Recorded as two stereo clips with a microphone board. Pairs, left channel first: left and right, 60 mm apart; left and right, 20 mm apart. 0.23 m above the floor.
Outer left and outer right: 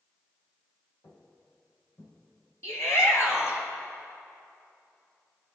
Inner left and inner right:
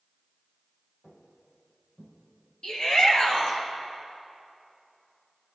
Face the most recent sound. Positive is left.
turn(degrees=60)  # may be behind; listen again after turning